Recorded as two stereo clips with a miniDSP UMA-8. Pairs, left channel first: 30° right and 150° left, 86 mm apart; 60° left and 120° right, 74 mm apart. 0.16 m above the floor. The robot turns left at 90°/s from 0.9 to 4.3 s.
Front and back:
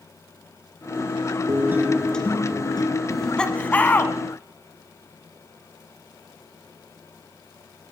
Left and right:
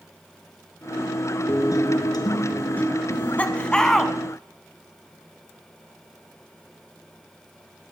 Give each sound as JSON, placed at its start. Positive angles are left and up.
{"t": 1.5, "sound": "a guitar", "azimuth_deg": 110, "distance_m": 1.8}
{"t": 3.1, "sound": "laughter", "azimuth_deg": 60, "distance_m": 1.1}